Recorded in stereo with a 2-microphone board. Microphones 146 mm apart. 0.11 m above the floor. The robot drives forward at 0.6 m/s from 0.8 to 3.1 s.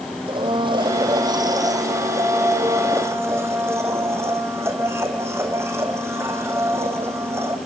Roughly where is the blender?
Right.